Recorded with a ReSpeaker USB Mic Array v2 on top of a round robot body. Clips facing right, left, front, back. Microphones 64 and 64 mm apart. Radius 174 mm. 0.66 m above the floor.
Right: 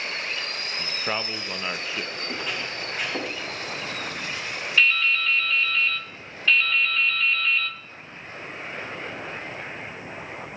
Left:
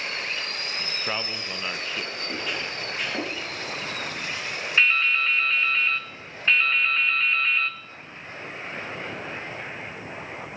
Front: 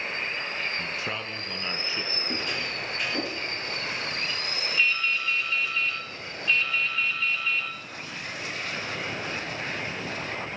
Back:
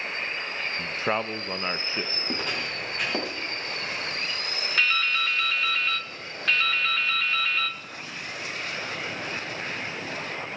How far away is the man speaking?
About 0.7 m.